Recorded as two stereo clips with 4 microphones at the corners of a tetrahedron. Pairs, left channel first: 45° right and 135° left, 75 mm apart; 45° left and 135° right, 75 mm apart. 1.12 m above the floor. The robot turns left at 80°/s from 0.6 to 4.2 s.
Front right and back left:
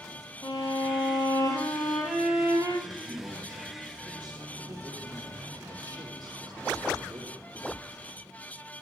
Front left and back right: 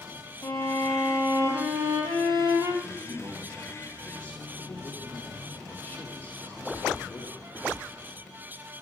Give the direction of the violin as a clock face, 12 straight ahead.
1 o'clock.